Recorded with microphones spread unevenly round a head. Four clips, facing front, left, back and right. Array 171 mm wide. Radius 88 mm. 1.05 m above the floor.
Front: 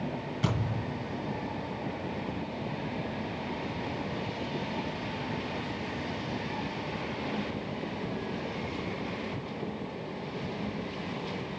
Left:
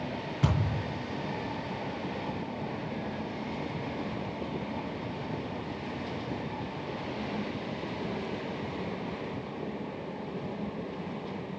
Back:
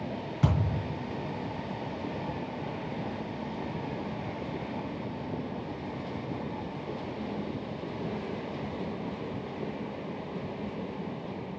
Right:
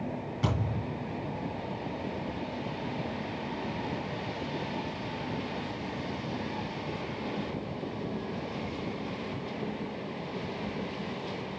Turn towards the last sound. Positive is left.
turn(degrees=150)